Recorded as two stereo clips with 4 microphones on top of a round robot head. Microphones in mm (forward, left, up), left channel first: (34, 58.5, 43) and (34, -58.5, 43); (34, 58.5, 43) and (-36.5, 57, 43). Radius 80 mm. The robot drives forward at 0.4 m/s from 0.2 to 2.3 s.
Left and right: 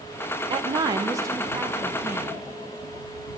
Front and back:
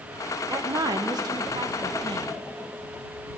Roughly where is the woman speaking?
Behind right.